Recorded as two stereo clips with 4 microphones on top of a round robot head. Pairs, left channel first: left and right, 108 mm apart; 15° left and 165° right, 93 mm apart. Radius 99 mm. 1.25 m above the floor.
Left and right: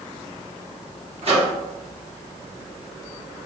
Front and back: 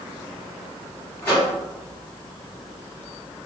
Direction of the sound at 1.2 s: 60° right.